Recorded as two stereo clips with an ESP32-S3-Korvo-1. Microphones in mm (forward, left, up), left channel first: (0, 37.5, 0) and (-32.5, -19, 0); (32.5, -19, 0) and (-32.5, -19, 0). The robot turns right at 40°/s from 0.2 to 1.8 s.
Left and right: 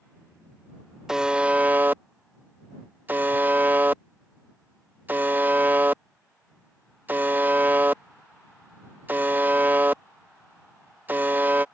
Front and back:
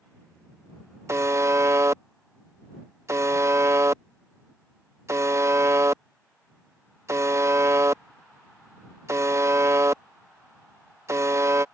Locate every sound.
1.1 s a buzzer: 160° left; by 11.7 s 170° right